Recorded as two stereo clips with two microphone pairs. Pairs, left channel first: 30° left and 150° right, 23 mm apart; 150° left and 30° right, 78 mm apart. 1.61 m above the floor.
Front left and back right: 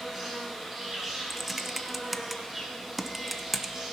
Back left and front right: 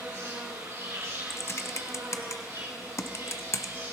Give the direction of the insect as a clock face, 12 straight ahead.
3 o'clock.